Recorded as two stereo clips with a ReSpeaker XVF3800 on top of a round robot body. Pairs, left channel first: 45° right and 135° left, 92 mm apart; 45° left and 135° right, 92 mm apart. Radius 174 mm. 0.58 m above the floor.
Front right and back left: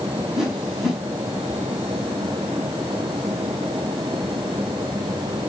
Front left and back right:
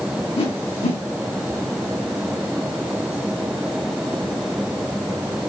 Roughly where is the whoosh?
Ahead left.